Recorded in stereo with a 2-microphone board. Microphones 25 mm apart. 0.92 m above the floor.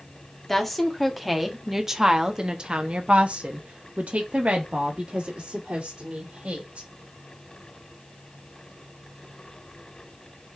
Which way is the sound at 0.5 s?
10° left (ahead or behind).